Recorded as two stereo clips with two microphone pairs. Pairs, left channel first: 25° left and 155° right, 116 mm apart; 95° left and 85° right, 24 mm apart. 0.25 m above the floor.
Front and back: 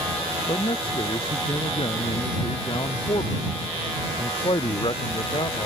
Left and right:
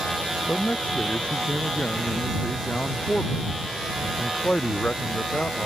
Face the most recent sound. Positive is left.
turn(degrees=70)